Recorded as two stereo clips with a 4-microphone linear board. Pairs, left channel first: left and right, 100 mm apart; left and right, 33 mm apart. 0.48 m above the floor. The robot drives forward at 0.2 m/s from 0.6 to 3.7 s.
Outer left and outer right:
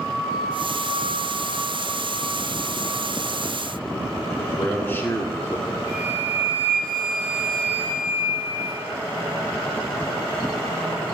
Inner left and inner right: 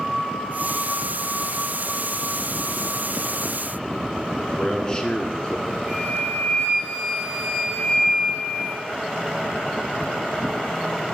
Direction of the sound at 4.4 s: 20° left (ahead or behind).